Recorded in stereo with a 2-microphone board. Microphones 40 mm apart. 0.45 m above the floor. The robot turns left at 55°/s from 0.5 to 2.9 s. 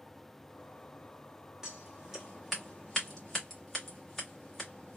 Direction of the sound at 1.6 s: 15° right (ahead or behind).